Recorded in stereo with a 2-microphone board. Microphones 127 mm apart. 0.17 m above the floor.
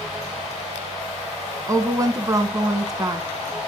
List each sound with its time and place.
1.7 s a woman speaking: 25° right (ahead or behind), 1.4 m